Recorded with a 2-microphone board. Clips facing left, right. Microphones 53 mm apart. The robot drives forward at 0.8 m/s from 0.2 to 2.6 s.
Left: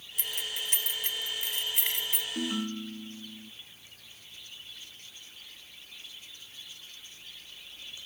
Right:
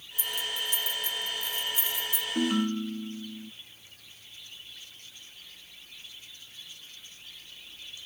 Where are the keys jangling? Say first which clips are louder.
Right 3 dB; 70° left (ahead or behind); by 2.2 s 60° left (ahead or behind).